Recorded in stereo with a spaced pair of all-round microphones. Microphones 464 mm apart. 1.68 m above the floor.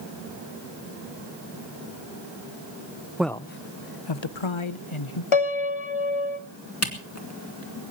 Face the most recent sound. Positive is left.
turn(degrees=30)  # may be behind; listen again after turning